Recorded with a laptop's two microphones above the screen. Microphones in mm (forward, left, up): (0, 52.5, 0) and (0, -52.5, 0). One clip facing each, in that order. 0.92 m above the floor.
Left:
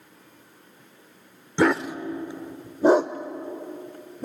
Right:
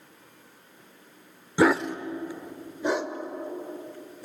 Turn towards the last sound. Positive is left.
turn(degrees=55)  # may be behind; listen again after turning